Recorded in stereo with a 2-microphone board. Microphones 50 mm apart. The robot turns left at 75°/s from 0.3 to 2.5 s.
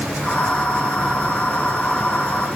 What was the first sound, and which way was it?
Only background noise.